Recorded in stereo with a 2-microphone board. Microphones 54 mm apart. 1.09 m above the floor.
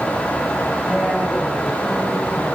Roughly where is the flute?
I don't hear a flute.